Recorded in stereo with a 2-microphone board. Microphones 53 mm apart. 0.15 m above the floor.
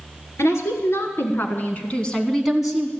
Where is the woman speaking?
60° left (ahead or behind), 2.5 m; by 2.9 s 20° right (ahead or behind), 1.5 m.